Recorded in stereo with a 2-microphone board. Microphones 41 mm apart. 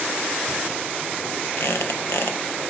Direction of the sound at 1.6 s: 70° left (ahead or behind).